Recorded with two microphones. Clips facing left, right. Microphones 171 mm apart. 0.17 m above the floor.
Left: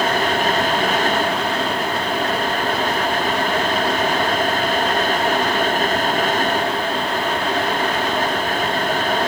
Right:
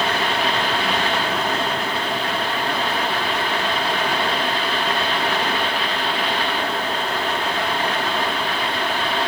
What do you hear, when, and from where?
Only background noise.